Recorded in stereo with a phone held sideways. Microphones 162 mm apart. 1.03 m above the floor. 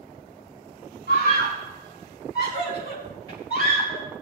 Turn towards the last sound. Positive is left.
turn(degrees=80)